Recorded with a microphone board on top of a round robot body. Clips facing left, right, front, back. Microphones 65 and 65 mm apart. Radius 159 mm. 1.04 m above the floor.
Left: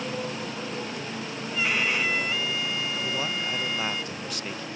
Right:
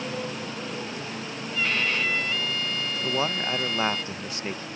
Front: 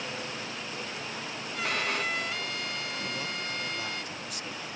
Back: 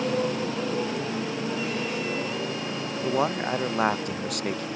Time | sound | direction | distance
0.0 | a motorcycle | straight behind | ?
1.5 | a violin | 10° left | ?
3.0 | a man speaking | 155° right | ?